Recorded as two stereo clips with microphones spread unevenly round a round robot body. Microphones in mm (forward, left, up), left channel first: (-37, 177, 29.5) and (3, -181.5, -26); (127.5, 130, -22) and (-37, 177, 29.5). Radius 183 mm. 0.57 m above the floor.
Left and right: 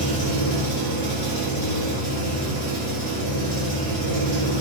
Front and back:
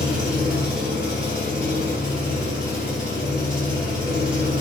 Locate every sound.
0.0 s an engine running: 70° left, 1.6 m